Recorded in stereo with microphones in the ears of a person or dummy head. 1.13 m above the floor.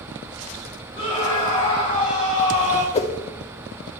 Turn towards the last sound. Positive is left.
turn(degrees=30)  # may be behind; listen again after turning